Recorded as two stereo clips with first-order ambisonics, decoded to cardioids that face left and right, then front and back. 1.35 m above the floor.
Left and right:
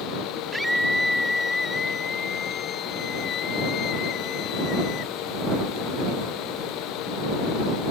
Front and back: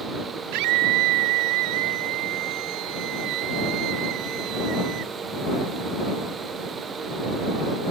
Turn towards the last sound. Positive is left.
turn(degrees=140)